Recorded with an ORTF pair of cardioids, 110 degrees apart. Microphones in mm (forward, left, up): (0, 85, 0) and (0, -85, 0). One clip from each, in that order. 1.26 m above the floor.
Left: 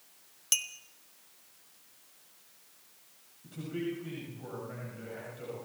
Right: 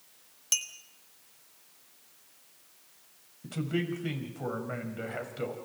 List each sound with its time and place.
0.5 s a clink: 15° left, 1.3 m
3.4 s a man speaking: 70° right, 6.5 m